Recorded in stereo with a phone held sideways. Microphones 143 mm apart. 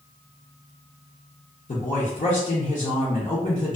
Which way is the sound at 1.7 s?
65° left (ahead or behind).